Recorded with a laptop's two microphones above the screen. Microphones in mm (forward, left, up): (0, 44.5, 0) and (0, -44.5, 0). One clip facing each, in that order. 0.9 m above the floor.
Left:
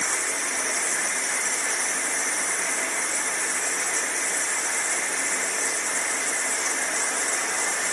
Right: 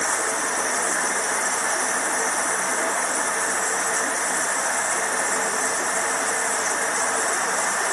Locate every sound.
0.0 s running water: 40° right (ahead or behind)